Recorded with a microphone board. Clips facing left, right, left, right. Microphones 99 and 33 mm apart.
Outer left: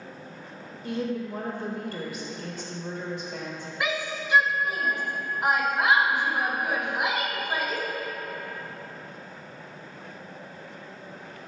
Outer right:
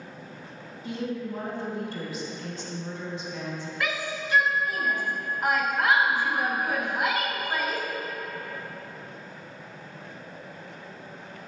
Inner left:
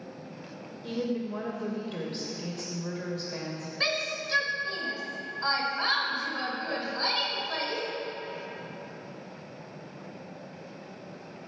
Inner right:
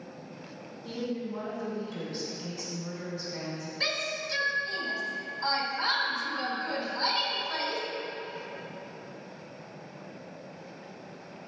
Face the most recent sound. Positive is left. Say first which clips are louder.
# outer left 2 dB, inner left 2 dB
turn(degrees=20)  # may be behind; listen again after turning